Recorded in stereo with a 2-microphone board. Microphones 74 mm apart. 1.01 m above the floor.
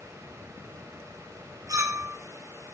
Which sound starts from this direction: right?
A clink, at 1.7 s.